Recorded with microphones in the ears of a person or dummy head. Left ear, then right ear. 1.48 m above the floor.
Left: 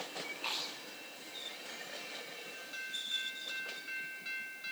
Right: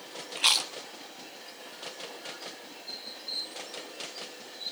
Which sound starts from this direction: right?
Chewing, at 0.3 s.